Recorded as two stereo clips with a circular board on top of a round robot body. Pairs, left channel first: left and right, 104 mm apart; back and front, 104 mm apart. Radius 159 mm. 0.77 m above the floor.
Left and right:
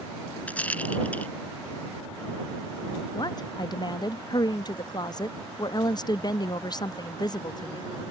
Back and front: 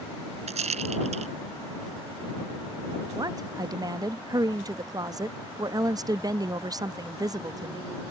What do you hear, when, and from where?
0.5 s a rattle: 15° left
3.1 s a woman speaking: 45° left